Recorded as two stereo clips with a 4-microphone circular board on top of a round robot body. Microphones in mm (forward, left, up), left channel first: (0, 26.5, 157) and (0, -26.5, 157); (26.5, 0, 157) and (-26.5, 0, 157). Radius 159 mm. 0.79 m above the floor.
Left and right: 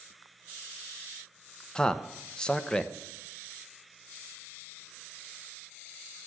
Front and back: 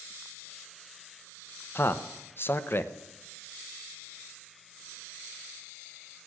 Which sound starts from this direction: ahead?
A man speaking, at 1.8 s.